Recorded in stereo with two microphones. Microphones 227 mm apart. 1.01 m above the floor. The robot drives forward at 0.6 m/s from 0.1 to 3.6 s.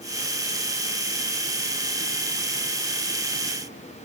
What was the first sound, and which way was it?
Only background noise.